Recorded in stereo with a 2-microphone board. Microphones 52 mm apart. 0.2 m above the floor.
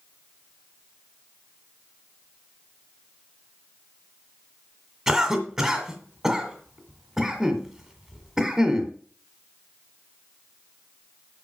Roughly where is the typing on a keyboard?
No typing on a keyboard in this recording.